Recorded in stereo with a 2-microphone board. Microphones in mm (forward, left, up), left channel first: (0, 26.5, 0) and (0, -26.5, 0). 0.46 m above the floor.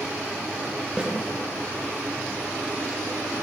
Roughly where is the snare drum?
Centre.